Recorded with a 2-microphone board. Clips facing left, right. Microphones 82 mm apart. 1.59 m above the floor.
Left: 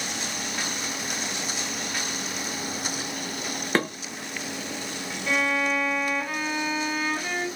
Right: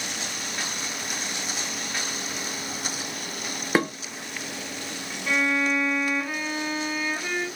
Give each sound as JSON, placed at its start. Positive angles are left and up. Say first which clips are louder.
{"t": 3.8, "sound": "dishes clattering", "louder": "right 2 dB", "side_deg": -10, "distance_m": 0.6}
{"t": 5.3, "sound": "a violin", "louder": "right 1 dB", "side_deg": -5, "distance_m": 1.0}